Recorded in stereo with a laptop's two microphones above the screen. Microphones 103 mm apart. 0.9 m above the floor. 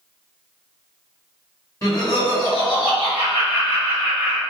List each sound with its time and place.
1.8 s laughter: 30° left (ahead or behind), 1.4 m; by 4.4 s 75° left (ahead or behind), 1.8 m